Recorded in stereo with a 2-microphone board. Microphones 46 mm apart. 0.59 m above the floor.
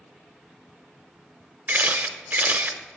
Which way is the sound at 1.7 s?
40° right (ahead or behind).